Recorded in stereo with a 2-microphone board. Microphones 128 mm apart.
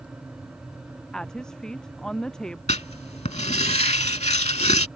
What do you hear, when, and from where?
1.1 s a woman speaking: 5° left (ahead or behind)
2.7 s writing: 65° left (ahead or behind)